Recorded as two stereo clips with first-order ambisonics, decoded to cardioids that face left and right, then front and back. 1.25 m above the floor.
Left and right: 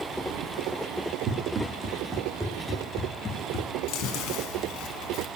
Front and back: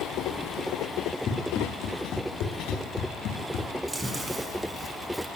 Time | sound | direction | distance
1.3 | running footsteps | 50° right | 2 m
3.9 | chewing | 100° left | 1.7 m